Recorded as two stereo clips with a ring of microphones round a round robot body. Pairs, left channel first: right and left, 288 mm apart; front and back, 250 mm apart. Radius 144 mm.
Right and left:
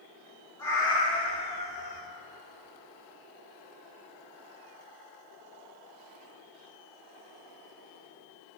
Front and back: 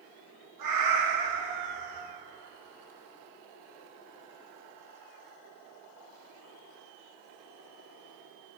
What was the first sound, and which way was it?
A cat meowing, 170° right.